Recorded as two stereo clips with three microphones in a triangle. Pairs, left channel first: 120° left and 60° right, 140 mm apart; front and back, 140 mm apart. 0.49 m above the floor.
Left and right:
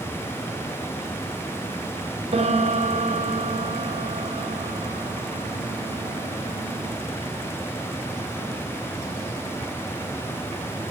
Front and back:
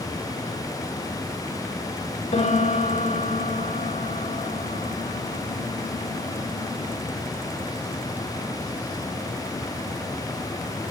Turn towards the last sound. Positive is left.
turn(degrees=-25)